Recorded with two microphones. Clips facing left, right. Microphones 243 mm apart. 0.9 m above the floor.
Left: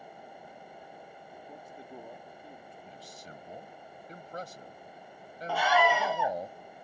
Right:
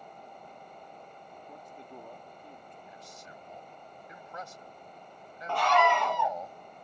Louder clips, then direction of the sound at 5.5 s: Even; 5° left (ahead or behind).